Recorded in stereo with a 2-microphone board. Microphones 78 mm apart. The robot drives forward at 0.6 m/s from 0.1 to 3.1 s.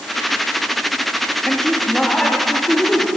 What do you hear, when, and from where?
1.4 s a man speaking: 5° left (ahead or behind), 0.6 m